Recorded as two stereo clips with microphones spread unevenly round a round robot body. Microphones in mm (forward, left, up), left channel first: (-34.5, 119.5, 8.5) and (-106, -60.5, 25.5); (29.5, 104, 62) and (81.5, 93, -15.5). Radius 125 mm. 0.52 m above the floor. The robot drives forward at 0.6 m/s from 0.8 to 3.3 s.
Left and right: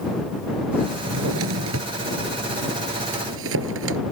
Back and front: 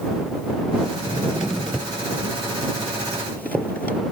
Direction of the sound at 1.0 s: 90° right.